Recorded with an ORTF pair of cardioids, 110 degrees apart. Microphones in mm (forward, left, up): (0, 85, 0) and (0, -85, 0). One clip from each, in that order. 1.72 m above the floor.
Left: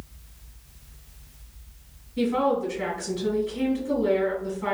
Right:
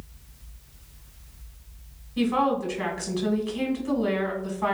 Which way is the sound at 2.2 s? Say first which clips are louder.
Even; 65° right.